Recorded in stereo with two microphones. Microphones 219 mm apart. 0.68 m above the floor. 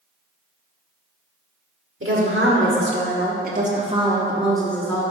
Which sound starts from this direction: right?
A woman speaking, at 2.0 s.